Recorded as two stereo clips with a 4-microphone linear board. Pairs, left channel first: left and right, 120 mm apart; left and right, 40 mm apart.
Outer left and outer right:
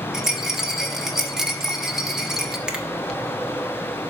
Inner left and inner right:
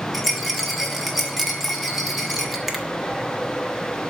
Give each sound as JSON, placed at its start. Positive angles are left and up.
{"t": 0.1, "sound": "a rattle", "side_deg": -5, "distance_m": 1.0}
{"t": 2.7, "sound": "a finger snap", "side_deg": -5, "distance_m": 1.0}